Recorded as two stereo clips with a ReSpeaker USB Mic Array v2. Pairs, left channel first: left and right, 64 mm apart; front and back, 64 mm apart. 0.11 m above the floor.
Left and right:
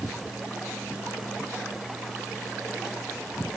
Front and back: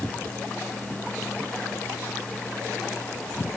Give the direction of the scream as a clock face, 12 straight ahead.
No scream in this recording.